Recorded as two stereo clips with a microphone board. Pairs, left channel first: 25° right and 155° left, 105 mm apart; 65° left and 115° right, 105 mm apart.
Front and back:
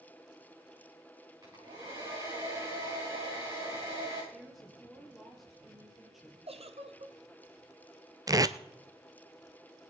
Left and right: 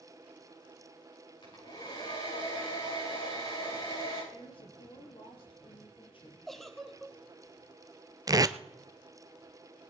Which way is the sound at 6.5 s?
155° left.